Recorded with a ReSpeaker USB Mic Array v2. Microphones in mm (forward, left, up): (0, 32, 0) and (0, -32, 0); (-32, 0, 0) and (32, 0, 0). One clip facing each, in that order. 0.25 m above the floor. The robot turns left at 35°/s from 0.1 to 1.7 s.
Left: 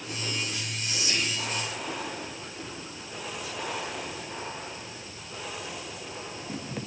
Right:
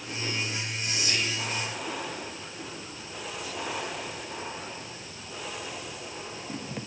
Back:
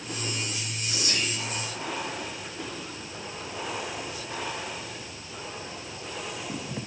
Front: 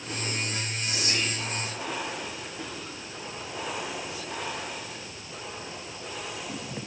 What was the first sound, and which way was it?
Whispering, 40° left.